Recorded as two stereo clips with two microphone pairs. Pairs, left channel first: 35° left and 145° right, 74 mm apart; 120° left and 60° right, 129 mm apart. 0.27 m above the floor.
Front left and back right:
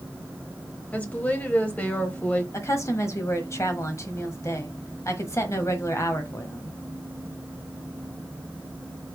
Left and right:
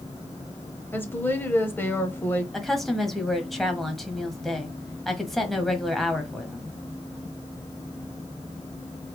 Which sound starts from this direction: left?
A woman speaking, at 0.9 s.